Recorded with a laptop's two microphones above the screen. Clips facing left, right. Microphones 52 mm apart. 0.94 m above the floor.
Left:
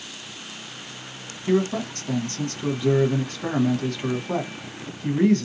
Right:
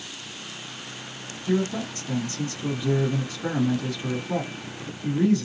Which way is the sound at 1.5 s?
50° left (ahead or behind).